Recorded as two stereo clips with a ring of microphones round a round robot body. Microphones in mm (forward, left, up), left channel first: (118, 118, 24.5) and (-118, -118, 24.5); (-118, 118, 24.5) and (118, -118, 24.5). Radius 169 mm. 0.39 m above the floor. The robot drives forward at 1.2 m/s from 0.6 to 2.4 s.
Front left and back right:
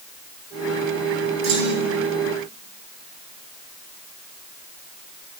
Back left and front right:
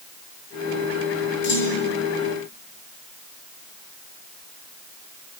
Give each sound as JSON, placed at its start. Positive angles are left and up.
{"t": 1.4, "sound": "a clunk", "azimuth_deg": -165, "distance_m": 8.5}